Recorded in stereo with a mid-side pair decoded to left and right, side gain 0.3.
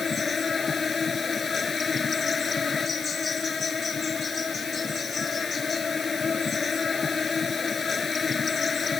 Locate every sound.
0.0 s an insect: 50° left